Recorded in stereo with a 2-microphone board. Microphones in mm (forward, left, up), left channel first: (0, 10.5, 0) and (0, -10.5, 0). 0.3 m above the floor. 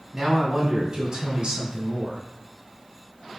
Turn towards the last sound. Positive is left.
turn(degrees=-55)  # may be behind; listen again after turning